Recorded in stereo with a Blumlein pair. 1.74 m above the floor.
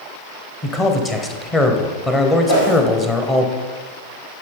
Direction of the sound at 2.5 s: 55° left.